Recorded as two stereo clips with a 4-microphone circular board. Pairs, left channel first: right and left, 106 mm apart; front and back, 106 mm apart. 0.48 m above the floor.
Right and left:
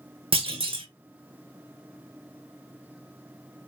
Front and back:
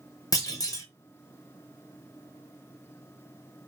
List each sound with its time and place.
0.3 s a clunk: 55° left, 0.7 m